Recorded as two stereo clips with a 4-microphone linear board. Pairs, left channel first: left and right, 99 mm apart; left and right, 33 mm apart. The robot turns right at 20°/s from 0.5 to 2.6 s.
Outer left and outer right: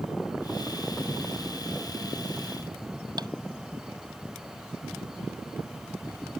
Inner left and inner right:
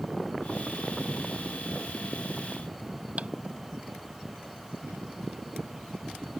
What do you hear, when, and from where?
3.2 s tapping: 40° right (ahead or behind)